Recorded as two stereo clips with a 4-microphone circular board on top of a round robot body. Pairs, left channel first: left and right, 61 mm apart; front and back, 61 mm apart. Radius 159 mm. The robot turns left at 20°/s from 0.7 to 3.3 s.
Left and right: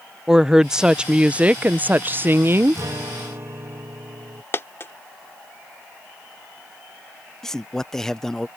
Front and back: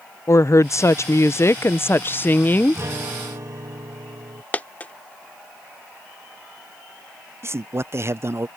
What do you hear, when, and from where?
0.3 s a woman speaking: 10° right; by 2.8 s 55° right
2.8 s a guitar: 130° right; by 4.4 s 140° right
4.5 s a dropped coin: 55° left
7.4 s a man speaking: 170° left